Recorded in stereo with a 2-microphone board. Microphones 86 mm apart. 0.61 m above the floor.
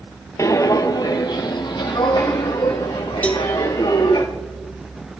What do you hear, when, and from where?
0.4 s footsteps: 40° left (ahead or behind), 0.9 m; by 4.2 s 75° left (ahead or behind), 3 m
3.2 s a cowbell: 15° left (ahead or behind), 1.2 m